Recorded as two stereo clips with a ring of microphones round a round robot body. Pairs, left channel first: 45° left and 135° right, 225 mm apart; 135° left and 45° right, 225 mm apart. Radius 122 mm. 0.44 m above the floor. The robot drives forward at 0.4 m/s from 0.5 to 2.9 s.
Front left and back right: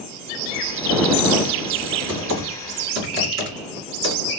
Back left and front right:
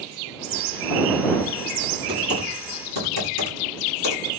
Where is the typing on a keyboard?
165° right, 2 m; by 4.2 s 170° right, 2.5 m.